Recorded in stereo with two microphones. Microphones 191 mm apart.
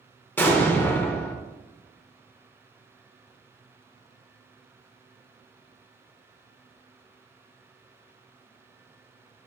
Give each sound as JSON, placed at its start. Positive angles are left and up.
{"t": 0.4, "sound": "an explosion", "side_deg": 10, "distance_m": 0.6}